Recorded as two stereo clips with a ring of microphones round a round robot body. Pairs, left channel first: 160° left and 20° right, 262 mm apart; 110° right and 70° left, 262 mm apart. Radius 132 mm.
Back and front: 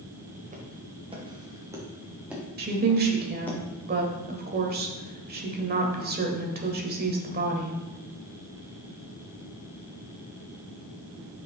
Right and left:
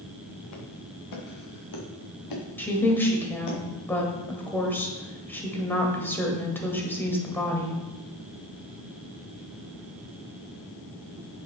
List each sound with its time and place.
0.5 s footsteps: 85° right, 2 m; by 3.6 s 120° right, 3 m
2.6 s a woman speaking: 35° right, 1.3 m